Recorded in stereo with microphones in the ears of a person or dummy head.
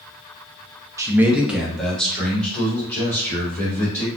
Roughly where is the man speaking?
Centre.